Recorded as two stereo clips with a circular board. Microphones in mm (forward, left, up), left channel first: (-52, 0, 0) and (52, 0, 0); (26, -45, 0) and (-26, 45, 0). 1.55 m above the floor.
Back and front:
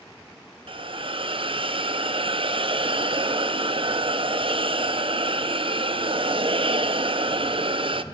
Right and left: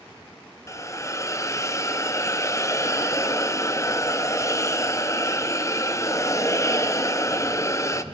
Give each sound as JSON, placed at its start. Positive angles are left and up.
{"t": 0.7, "sound": "a hiss", "azimuth_deg": -5, "distance_m": 0.6}